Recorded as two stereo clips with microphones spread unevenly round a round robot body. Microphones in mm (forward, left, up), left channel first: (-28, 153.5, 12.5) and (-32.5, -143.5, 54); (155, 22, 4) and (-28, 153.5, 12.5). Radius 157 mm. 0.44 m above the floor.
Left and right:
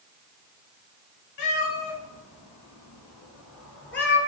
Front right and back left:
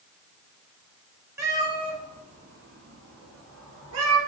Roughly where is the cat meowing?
Ahead left.